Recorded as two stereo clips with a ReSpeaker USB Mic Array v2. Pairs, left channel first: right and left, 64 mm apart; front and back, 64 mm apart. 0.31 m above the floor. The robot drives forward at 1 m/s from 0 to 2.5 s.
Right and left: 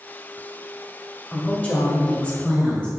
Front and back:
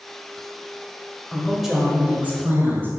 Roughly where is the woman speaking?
Ahead right.